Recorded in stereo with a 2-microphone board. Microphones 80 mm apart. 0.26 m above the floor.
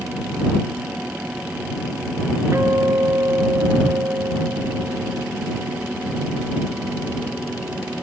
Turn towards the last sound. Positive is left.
turn(degrees=-35)  # may be behind; listen again after turning